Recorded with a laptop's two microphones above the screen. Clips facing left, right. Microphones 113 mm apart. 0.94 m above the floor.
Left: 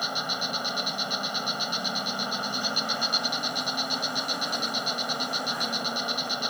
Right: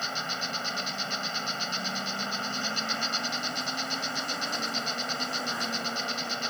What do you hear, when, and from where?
0.0 s an insect: 15° left (ahead or behind)